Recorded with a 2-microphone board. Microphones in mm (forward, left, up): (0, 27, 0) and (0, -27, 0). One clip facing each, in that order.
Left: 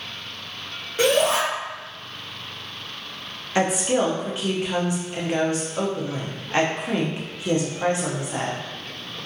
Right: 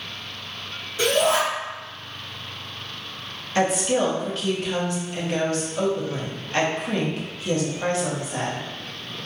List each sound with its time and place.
1.0 s a shout: 40° left (ahead or behind), 0.9 m
3.5 s a woman speaking: 20° left (ahead or behind), 0.7 m